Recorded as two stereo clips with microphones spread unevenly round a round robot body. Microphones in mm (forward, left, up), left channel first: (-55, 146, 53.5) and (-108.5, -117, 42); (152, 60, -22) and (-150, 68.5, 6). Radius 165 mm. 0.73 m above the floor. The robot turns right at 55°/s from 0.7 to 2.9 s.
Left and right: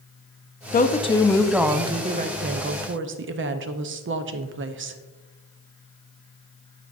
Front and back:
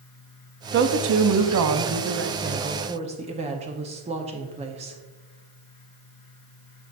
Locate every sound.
0.7 s a woman speaking: 130° left, 0.6 m; by 5.0 s 110° right, 0.6 m